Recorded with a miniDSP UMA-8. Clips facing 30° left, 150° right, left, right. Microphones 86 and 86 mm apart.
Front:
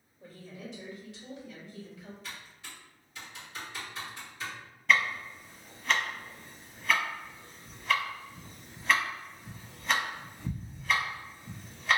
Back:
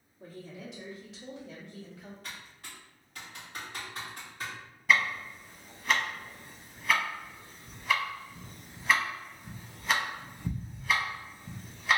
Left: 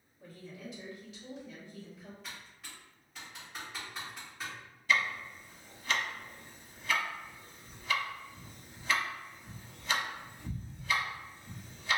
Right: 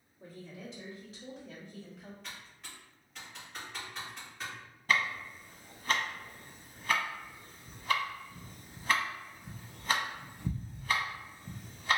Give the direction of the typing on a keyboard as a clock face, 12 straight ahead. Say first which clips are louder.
Even, even; 6 o'clock.